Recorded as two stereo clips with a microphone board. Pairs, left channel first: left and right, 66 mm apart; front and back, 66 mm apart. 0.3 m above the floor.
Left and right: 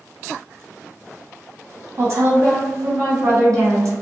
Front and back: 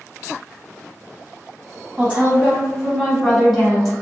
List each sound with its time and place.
2.0 s a woman speaking: 115° right, 1.9 m; by 3.9 s 80° right, 2 m